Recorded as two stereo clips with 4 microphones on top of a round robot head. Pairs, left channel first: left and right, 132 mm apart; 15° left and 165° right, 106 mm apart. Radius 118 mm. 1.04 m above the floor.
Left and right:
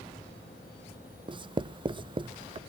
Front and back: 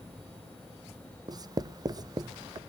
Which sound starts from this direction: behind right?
Writing, at 1.3 s.